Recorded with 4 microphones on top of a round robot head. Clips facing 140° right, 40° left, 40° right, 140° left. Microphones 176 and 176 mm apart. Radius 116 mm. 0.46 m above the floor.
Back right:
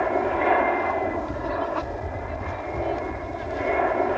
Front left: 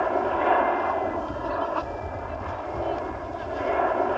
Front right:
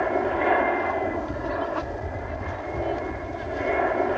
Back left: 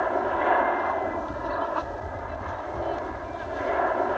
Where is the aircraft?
75° right.